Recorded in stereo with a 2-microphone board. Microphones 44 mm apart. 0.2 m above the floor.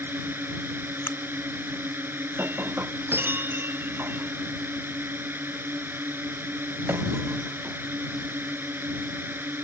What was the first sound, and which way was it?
A drone, 55° right (ahead or behind).